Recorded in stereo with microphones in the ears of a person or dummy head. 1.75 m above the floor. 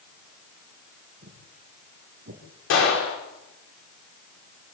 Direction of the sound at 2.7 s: 70° left (ahead or behind).